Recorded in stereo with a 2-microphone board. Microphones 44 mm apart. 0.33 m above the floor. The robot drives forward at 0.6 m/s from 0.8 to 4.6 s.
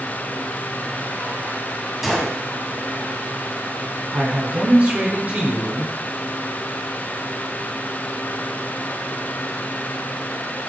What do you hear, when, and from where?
2.0 s a gunshot: 5° right (ahead or behind), 1.9 m
4.1 s a man speaking: 40° right (ahead or behind), 2.5 m; by 6.0 s 35° right (ahead or behind), 2.5 m